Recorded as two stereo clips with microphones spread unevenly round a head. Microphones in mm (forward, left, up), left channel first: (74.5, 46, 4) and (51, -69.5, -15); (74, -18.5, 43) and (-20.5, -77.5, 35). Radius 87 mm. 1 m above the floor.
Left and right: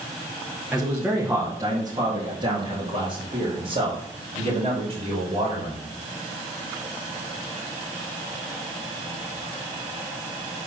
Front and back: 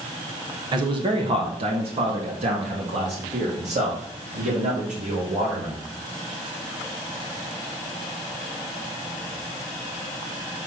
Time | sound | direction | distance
0.7 | a man speaking | straight behind | 1.2 m